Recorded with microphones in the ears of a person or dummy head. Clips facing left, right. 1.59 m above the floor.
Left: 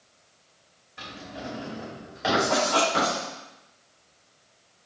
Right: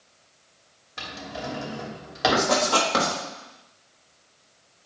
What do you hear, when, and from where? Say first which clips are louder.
1.0 s a drawer: right 3 dB; 60° right (ahead or behind), 2.5 m
2.3 s writing: even; 70° right (ahead or behind), 3.5 m